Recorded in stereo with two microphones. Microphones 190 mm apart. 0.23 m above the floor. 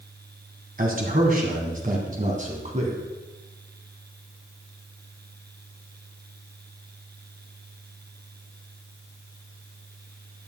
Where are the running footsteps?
No running footsteps in this recording.